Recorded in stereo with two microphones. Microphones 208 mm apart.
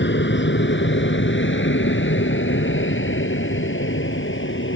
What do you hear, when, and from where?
0.0 s an aircraft: 65° left (ahead or behind); by 4.8 s 75° left (ahead or behind)